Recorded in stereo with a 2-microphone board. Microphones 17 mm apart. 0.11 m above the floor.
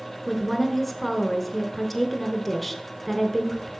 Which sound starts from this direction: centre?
A woman speaking, at 0.3 s.